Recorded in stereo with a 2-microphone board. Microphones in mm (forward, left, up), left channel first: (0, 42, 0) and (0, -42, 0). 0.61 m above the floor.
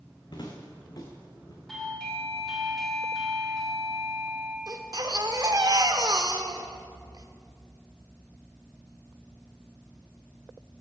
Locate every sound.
0.3 s footsteps: 60° left (ahead or behind), 2.5 m; by 1.6 s 45° left (ahead or behind), 3 m
1.7 s a doorbell: 5° left (ahead or behind), 1.7 m
4.7 s a baby crying: 50° right (ahead or behind), 1.0 m